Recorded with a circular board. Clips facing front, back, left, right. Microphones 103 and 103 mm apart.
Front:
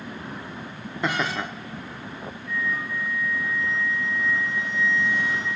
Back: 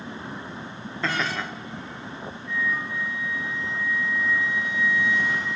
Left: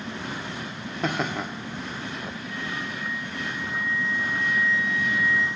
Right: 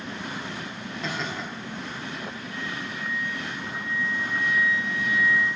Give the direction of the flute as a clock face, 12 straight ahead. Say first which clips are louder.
Even, left 1 dB; 9 o'clock.